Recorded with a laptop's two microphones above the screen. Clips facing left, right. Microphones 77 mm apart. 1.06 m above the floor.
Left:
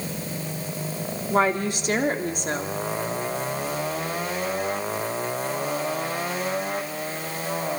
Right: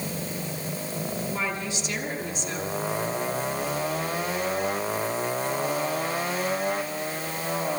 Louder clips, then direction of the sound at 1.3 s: Left 8 dB; 55° left (ahead or behind).